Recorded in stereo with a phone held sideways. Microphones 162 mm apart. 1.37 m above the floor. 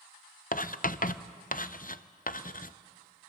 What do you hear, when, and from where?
0.5 s writing: 60° left (ahead or behind), 0.6 m